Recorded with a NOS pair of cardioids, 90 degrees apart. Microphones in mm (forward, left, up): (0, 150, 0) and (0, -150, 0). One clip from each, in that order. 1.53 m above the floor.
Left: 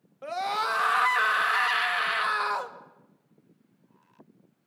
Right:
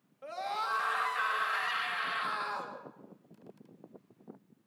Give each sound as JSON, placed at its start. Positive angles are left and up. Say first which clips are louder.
{"t": 0.2, "sound": "a scream", "louder": "left 7 dB", "azimuth_deg": 55, "distance_m": 2.5}